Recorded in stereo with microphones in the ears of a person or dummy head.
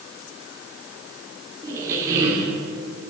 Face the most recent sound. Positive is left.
turn(degrees=-15)  # may be behind; listen again after turning